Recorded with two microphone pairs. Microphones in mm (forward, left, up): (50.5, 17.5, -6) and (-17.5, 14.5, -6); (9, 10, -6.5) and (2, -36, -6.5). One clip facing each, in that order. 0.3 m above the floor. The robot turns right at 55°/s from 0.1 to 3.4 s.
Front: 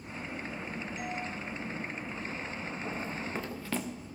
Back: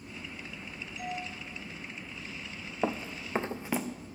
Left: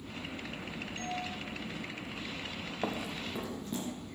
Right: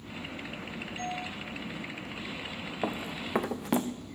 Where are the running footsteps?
Straight behind, 1.3 m; by 3.9 s 95° right, 1.4 m.